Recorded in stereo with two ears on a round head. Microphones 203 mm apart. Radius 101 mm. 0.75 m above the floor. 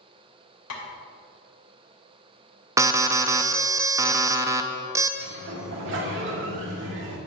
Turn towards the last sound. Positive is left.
turn(degrees=-55)  # may be behind; listen again after turning